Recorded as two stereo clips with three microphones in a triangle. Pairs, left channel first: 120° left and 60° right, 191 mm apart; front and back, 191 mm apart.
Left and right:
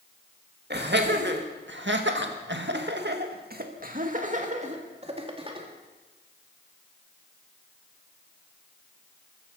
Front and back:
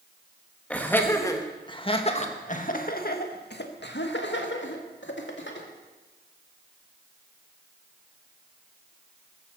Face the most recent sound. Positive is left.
turn(degrees=5)